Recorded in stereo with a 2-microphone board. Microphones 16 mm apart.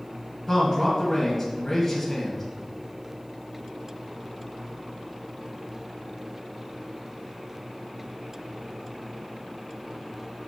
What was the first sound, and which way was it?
A man speaking, 10° left (ahead or behind).